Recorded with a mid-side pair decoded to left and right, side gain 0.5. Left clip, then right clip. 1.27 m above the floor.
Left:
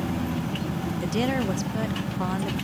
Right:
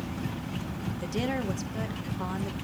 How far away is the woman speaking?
About 1.0 m.